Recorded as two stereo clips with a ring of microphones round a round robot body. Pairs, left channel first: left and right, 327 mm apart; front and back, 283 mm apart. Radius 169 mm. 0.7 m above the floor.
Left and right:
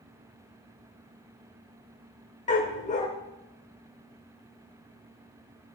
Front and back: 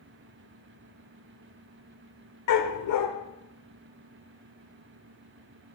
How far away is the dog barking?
About 0.9 m.